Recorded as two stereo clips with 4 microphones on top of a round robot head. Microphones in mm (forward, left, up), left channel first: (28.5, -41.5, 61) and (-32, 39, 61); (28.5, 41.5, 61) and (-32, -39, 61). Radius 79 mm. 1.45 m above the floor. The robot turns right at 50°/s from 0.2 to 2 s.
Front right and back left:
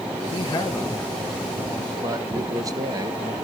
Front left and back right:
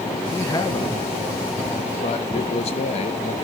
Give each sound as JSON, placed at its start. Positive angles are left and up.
{"t": 0.3, "sound": "a man speaking", "azimuth_deg": -15, "distance_m": 1.6}